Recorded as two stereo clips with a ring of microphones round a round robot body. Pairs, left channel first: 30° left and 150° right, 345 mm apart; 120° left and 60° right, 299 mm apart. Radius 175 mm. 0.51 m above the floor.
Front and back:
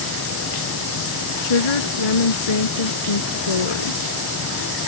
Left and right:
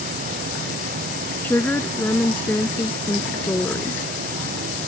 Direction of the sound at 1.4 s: 35° left.